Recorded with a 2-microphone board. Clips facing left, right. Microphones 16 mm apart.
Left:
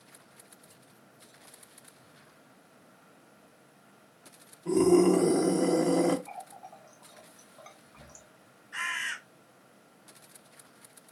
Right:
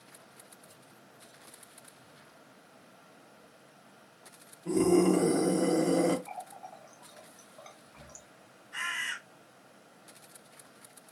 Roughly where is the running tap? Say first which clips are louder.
Right 1 dB; centre.